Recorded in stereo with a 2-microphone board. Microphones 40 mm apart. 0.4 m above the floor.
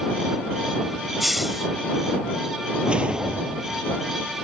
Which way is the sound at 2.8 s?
25° right (ahead or behind).